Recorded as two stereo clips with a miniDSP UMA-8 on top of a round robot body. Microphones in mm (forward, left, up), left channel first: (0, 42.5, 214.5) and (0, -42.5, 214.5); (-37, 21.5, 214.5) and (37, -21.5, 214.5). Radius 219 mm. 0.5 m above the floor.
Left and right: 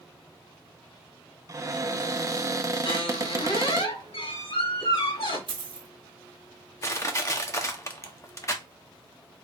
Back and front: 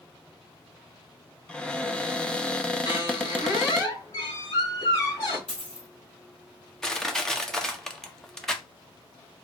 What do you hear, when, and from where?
1.5 s a cupboard door: 135° right, 1.0 m
2.9 s a squeak: 105° left, 2.5 m
5.5 s a dropped coin: 130° right, 1.1 m
6.8 s crushing: 70° left, 1.2 m